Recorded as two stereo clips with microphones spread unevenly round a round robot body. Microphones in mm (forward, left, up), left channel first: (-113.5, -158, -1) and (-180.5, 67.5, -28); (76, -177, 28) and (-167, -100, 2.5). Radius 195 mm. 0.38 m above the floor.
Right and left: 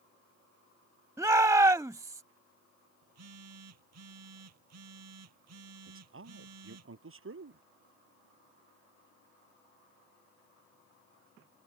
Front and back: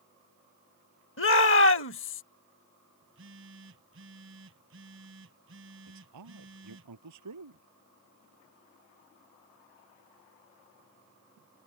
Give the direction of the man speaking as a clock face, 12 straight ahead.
7 o'clock.